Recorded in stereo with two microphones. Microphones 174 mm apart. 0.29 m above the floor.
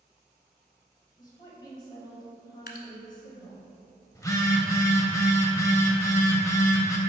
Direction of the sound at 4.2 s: 20° left (ahead or behind).